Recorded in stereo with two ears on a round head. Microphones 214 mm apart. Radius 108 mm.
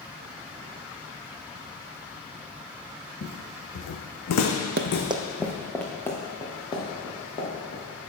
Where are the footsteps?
45° left (ahead or behind), 1.3 m.